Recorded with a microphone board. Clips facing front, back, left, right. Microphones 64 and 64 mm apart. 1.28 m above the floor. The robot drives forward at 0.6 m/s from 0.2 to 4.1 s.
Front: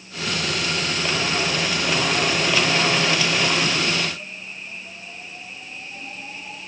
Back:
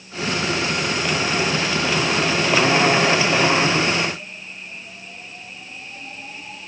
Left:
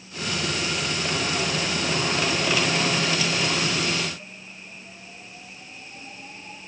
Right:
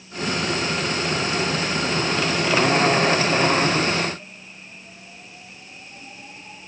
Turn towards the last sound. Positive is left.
No sound to turn to.